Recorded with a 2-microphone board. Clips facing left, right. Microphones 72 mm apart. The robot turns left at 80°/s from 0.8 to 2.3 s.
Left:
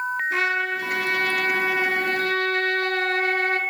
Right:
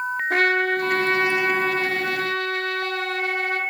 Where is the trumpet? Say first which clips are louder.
Right 7 dB; 120° right, 0.7 m; by 3.6 s 120° left, 0.7 m.